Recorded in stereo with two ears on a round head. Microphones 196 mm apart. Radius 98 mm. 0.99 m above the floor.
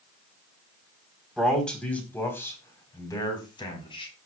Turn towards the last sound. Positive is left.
turn(degrees=25)  # may be behind; listen again after turning